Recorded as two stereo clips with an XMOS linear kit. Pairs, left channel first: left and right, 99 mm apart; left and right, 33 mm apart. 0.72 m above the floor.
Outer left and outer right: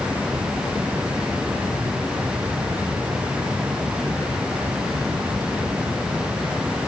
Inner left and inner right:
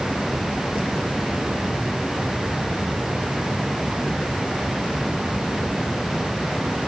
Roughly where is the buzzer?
I don't hear a buzzer.